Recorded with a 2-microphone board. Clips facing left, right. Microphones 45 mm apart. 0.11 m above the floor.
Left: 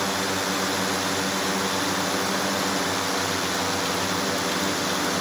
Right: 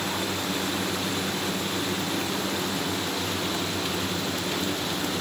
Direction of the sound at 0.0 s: 75° left (ahead or behind).